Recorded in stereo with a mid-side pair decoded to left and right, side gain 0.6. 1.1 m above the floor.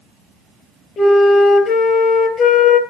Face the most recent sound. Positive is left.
turn(degrees=45)